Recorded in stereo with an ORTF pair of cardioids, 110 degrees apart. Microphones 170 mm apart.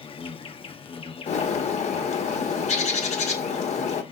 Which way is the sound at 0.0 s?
35° left.